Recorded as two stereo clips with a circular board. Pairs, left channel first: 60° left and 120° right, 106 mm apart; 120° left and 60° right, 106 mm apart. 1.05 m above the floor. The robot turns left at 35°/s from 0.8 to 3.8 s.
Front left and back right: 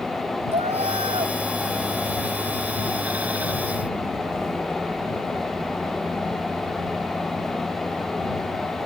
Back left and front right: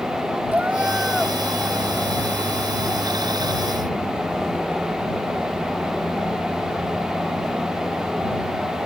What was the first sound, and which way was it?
A cat meowing, 135° right.